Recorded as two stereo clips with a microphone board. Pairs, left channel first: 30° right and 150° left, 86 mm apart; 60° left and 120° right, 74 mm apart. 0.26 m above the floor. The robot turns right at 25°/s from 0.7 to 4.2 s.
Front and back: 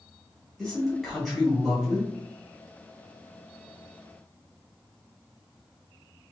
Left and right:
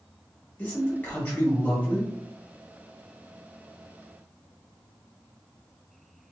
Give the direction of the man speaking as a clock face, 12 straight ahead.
10 o'clock.